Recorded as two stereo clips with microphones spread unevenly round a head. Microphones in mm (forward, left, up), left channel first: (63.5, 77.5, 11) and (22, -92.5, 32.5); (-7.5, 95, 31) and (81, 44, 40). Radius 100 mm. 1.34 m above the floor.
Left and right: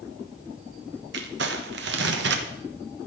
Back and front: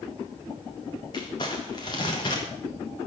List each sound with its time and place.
1.1 s crumpling: 145° right, 1.2 m